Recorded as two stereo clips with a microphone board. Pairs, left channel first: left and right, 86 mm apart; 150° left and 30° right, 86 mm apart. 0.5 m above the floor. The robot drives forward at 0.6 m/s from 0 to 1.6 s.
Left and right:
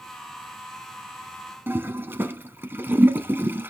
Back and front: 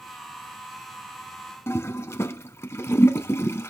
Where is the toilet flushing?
155° right, 0.9 m.